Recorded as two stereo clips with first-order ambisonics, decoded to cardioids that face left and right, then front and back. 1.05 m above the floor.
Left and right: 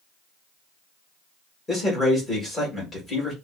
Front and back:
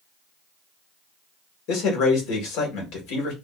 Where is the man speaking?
15° left, 1.7 m.